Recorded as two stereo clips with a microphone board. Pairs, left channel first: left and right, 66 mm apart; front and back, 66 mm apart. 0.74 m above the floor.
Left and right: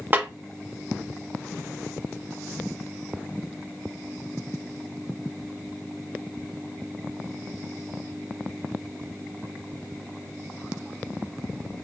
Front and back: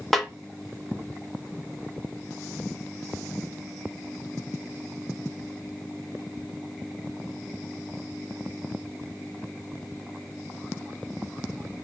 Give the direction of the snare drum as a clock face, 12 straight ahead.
3 o'clock.